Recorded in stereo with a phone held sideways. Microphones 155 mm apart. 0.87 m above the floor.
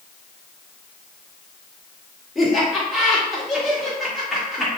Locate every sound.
2.4 s laughter: centre (ahead or behind), 2 m